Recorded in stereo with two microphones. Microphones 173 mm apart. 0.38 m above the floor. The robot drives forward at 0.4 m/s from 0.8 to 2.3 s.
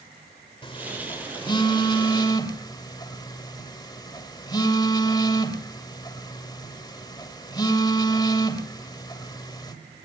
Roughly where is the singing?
No singing in this recording.